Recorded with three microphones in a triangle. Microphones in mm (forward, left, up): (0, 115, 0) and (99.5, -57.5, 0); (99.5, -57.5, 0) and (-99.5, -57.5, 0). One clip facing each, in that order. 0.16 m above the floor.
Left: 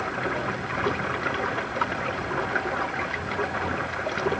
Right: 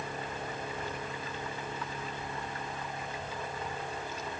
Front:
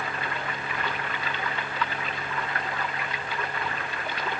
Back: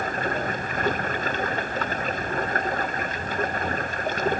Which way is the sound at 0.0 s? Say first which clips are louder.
Left 10 dB, back 6 dB; 135° left.